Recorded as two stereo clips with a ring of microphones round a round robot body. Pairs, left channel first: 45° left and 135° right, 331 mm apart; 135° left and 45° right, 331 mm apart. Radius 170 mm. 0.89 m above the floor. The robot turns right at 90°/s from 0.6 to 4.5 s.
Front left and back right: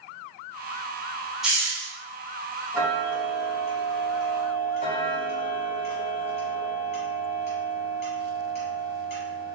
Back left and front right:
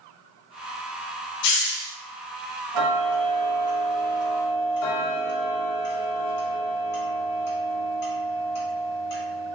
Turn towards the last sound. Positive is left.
turn(degrees=100)